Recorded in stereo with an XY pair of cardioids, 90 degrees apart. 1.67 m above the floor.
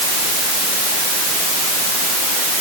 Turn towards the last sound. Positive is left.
No sound to turn to.